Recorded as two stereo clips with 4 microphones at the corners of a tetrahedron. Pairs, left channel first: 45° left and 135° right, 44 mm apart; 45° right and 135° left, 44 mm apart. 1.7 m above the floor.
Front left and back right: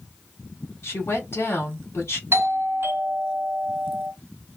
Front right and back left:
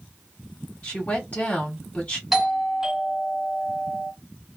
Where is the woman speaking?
15° left, 1.5 m.